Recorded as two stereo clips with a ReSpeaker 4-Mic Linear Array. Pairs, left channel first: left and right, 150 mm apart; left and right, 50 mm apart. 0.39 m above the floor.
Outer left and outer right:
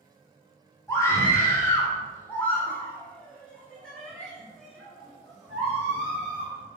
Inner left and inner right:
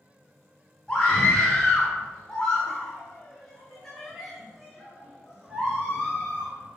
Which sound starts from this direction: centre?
A scream, at 0.9 s.